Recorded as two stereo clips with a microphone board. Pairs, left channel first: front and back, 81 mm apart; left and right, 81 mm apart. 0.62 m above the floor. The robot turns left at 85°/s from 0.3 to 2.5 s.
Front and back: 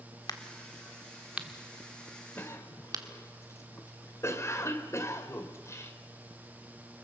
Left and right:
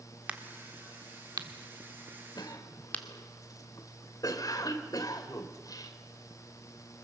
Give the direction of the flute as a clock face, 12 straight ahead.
I don't hear a flute.